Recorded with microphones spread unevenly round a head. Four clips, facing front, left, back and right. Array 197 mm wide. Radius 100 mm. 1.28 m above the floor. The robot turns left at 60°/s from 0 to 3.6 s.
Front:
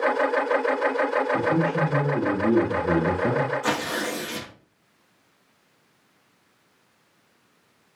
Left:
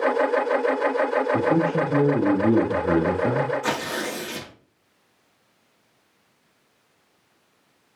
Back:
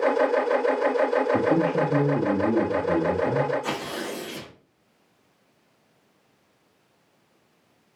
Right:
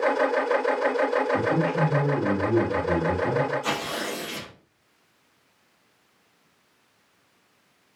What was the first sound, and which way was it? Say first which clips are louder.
A man speaking: left 3 dB, back 1 dB; 145° left.